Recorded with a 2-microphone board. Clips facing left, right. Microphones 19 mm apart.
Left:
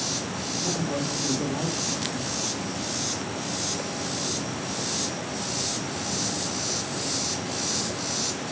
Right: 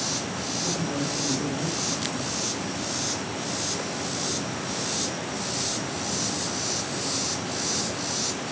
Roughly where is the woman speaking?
Left.